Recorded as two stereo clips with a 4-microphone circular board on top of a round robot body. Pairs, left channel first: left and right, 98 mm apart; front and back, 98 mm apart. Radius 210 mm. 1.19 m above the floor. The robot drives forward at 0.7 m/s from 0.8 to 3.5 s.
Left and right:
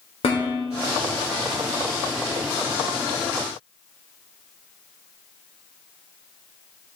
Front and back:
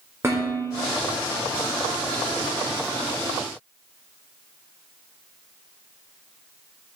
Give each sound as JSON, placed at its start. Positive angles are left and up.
{"t": 0.2, "sound": "dishes clattering", "azimuth_deg": 115, "distance_m": 1.2}